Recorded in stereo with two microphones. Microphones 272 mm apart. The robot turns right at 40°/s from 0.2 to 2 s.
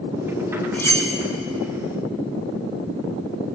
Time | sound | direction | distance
0.7 | cutlery clinking | 5° left (ahead or behind) | 1.0 m